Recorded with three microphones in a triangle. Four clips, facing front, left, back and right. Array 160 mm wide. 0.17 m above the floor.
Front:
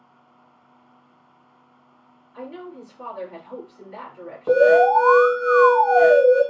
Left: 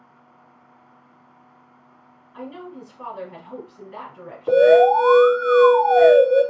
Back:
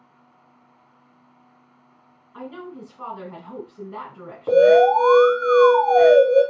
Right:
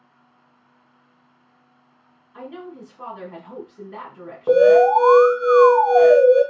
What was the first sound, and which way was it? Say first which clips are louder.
A woman speaking: even, even; 170° right.